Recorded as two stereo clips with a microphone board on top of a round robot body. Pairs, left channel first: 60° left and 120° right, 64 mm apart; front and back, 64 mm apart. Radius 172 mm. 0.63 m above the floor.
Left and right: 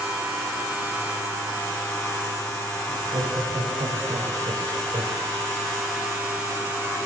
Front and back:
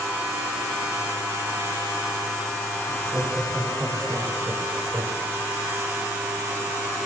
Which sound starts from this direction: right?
Laughter, at 2.9 s.